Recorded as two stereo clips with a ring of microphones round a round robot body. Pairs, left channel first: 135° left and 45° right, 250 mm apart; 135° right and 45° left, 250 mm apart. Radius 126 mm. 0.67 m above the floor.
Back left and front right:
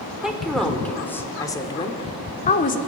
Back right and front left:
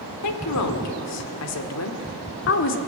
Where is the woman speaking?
130° right, 2 m; by 2.8 s 170° right, 1.8 m.